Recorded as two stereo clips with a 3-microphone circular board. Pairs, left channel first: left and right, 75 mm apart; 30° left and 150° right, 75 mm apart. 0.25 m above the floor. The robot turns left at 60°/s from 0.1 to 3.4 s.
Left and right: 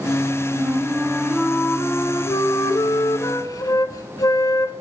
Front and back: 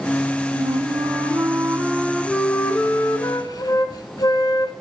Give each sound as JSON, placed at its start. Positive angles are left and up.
{"t": 0.5, "sound": "a flute", "azimuth_deg": -135, "distance_m": 0.5}